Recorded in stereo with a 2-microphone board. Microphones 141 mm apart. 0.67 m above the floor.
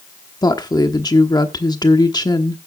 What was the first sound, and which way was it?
A woman speaking, 30° left (ahead or behind).